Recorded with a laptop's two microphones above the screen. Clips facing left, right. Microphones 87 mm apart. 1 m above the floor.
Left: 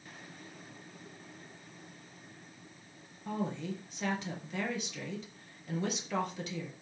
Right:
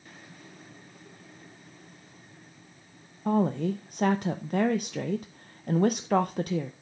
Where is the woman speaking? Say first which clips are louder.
Right 11 dB; 50° right (ahead or behind), 0.5 m.